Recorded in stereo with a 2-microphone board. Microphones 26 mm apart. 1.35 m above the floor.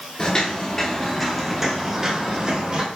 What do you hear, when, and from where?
0.2 s footsteps: 30° left (ahead or behind), 1.5 m; by 2.9 s 40° right (ahead or behind), 1.6 m